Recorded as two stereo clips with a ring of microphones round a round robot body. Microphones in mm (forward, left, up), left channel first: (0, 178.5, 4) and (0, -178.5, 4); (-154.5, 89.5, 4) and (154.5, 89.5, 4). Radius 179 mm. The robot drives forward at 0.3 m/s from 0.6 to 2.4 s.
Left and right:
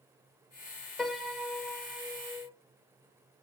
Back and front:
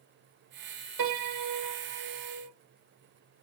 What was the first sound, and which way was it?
A piano, straight ahead.